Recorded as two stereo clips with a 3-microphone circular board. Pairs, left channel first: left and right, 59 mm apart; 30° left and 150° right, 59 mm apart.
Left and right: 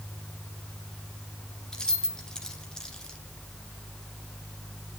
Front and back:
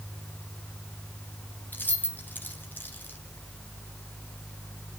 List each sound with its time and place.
1.7 s keys jangling: 20° left, 1.0 m